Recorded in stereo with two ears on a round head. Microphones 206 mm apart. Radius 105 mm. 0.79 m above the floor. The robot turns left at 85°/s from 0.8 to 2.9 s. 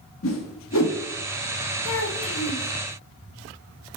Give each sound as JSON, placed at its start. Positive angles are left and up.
{"t": 0.2, "sound": "a whoosh", "side_deg": 65, "distance_m": 1.1}
{"t": 1.9, "sound": "a child speaking", "azimuth_deg": 105, "distance_m": 0.7}